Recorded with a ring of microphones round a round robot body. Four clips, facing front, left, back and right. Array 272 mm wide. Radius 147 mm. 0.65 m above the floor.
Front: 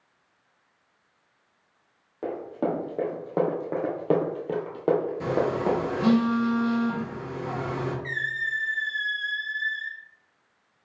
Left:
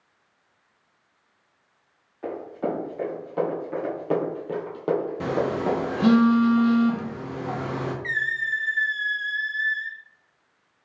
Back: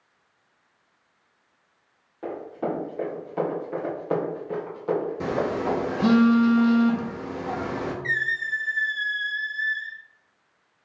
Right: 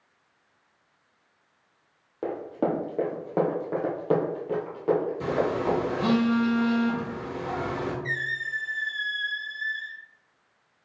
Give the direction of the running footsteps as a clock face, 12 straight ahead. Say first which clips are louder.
Right 1 dB, front 1 dB; 2 o'clock.